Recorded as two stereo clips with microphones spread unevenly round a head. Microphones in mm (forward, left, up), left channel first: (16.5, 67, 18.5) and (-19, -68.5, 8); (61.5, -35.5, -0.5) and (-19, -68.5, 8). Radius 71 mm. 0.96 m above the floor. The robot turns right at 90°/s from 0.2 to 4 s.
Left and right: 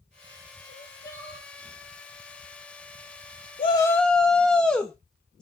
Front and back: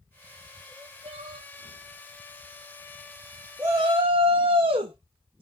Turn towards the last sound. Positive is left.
turn(degrees=160)